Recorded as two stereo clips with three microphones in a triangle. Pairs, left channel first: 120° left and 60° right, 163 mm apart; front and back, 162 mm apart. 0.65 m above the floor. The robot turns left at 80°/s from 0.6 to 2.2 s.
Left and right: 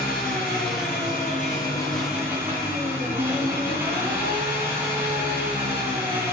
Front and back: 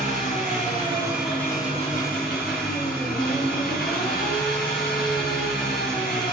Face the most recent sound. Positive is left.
turn(degrees=15)